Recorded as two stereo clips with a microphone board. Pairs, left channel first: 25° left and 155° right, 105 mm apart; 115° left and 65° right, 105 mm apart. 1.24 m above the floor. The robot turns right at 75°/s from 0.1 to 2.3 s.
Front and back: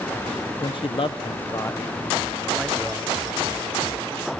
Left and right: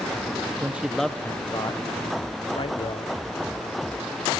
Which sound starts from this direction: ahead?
A man speaking, at 0.6 s.